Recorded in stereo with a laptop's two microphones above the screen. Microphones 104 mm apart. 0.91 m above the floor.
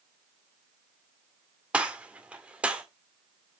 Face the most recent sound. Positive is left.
turn(degrees=-15)  # may be behind; listen again after turning